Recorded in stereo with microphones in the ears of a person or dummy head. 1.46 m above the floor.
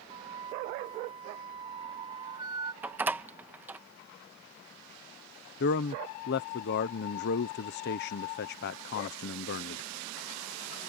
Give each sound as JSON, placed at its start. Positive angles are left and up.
{"t": 0.1, "sound": "a flute", "side_deg": -25}
{"t": 2.8, "sound": "a door slam", "side_deg": -10}
{"t": 5.6, "sound": "a man speaking", "side_deg": 50}